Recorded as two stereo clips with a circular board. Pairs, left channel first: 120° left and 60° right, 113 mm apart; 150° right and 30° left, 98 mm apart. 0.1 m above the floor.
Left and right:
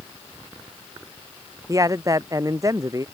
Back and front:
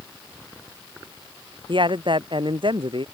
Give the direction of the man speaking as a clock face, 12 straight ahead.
12 o'clock.